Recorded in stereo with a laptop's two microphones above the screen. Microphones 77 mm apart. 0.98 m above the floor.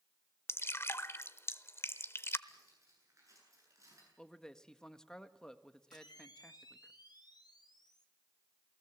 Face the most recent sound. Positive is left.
turn(degrees=65)  # may be behind; listen again after turning